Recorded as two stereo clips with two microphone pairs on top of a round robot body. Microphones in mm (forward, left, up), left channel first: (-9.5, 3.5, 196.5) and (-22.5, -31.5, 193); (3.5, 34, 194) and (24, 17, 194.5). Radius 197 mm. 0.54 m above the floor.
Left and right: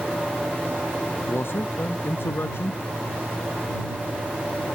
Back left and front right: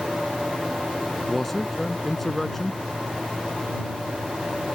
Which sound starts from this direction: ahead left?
A man speaking, at 1.3 s.